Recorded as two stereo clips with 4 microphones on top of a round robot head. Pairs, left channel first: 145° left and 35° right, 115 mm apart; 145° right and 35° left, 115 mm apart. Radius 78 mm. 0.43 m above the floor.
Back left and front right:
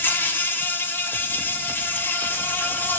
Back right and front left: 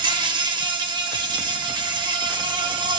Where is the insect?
75° left, 2.5 m.